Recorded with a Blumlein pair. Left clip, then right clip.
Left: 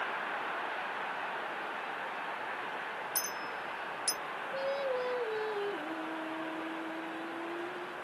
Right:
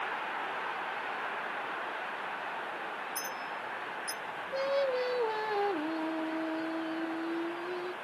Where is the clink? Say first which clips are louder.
Even; 60° left, 0.9 m.